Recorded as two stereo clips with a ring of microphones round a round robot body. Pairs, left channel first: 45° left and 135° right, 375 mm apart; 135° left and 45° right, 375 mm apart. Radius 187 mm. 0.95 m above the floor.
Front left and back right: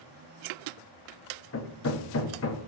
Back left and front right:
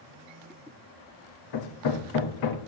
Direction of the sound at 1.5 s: 100° left.